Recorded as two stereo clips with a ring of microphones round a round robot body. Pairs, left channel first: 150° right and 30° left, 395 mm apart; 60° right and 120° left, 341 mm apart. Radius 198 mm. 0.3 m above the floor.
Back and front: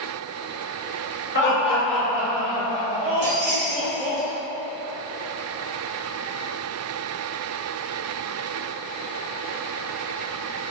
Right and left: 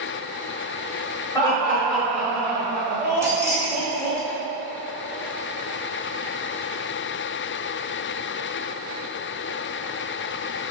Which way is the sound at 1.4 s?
125° right.